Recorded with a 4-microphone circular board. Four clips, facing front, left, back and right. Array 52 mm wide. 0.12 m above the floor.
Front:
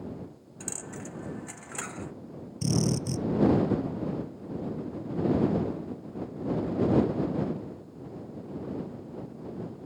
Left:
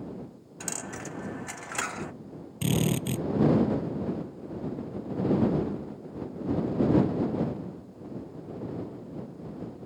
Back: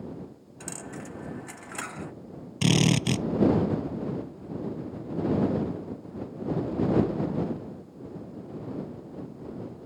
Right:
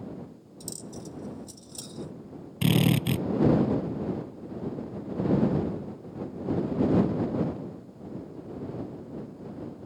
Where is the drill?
160° right.